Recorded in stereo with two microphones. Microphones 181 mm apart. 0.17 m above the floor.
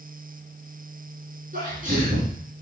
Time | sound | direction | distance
1.5 | a sneeze | 50° right (ahead or behind) | 2.5 m